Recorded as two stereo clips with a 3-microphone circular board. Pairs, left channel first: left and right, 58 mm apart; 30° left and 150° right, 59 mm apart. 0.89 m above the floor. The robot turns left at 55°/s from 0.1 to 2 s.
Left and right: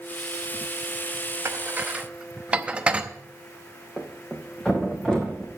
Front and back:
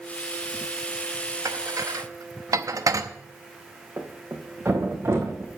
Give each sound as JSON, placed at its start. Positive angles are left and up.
{"t": 1.4, "sound": "dishes clattering", "azimuth_deg": -130, "distance_m": 0.8}
{"t": 4.0, "sound": "a thud", "azimuth_deg": 170, "distance_m": 2.0}